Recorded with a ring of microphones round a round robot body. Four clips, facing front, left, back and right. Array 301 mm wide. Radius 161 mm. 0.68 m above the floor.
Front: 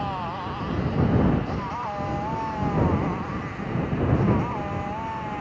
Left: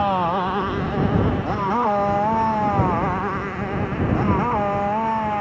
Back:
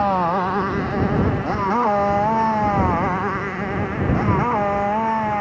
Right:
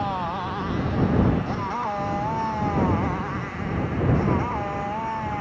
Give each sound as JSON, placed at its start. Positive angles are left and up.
{"t": 0.0, "sound": "a motorcycle", "azimuth_deg": 150}